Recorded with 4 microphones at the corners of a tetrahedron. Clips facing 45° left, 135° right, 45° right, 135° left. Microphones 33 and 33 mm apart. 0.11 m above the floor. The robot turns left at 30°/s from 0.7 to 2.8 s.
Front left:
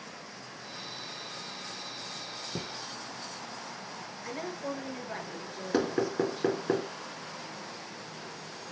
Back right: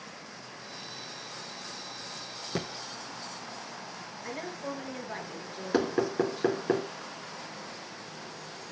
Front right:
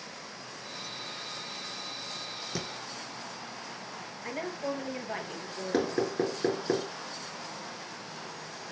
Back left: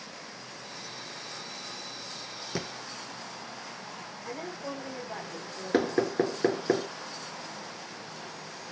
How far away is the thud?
About 1.0 m.